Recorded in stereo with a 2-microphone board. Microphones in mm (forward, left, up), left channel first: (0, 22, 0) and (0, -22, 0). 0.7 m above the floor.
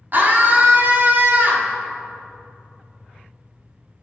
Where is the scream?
45° right (ahead or behind), 1.4 m.